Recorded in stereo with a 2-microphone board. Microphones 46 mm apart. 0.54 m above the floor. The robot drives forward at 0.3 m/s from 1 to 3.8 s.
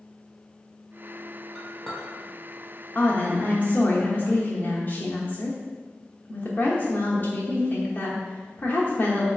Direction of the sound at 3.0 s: 45° left (ahead or behind).